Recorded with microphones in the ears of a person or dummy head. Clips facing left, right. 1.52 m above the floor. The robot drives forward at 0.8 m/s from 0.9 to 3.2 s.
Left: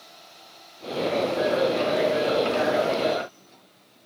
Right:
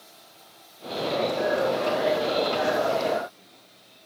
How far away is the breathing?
I don't hear breathing.